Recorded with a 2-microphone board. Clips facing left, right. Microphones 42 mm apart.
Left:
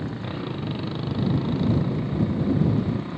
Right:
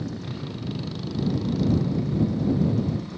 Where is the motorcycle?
30° left (ahead or behind).